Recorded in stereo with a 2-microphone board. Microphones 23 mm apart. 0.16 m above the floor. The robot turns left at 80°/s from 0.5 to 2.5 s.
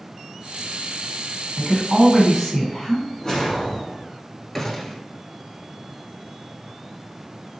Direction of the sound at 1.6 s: 10° right (ahead or behind).